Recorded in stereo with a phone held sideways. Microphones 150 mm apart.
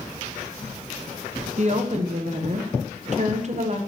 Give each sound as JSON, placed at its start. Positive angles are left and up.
{"t": 1.6, "sound": "a woman speaking", "side_deg": -50, "distance_m": 1.1}